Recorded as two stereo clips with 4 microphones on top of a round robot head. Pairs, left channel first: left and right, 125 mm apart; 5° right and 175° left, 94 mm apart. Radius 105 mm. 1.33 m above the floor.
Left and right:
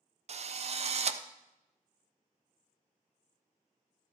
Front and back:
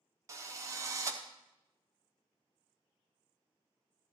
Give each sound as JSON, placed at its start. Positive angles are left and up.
{"t": 0.3, "sound": "a drill", "azimuth_deg": -125, "distance_m": 0.8}